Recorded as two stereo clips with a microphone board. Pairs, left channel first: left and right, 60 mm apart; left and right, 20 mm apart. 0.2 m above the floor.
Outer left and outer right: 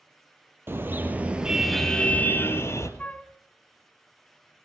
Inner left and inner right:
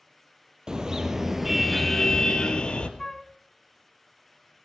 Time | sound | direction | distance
0.7 | a car horn | 40° right (ahead or behind) | 2.5 m
3.0 | a flute | 20° left (ahead or behind) | 1.0 m